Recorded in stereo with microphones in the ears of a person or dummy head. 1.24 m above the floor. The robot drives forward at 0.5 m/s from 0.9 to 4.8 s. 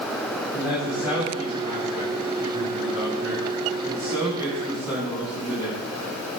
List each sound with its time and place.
0.5 s a man speaking: 15° right (ahead or behind), 8 m; by 5.7 s 10° right (ahead or behind), 10 m